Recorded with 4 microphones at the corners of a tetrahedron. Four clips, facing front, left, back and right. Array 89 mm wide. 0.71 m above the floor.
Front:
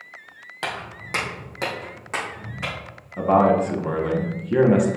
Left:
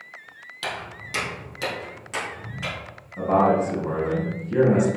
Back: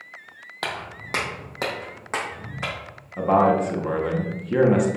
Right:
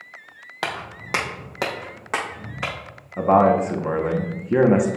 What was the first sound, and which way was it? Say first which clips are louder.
Footsteps: right 3 dB, even; 110° right.